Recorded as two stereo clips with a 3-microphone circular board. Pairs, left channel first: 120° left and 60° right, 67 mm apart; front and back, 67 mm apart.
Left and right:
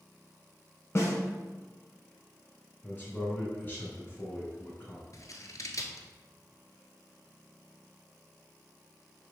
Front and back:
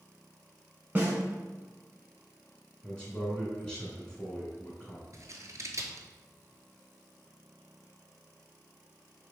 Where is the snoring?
No snoring in this recording.